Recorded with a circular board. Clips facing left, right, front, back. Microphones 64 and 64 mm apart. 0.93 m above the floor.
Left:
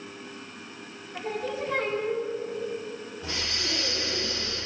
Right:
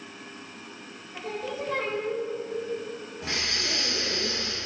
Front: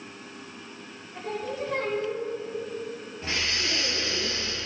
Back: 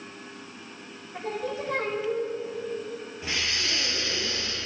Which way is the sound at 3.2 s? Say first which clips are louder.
Right 3 dB, front 1 dB; 95° right.